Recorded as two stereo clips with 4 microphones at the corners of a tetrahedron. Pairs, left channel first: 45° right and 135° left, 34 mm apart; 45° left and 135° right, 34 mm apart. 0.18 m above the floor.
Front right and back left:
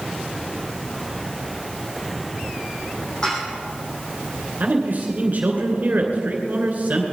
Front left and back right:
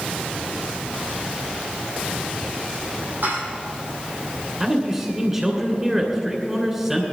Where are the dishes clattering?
110° right, 6 m.